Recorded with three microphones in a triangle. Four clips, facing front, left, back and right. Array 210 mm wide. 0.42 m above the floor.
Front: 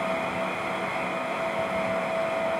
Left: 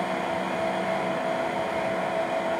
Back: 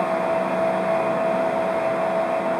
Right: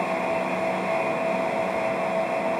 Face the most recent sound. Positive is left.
No sound to turn to.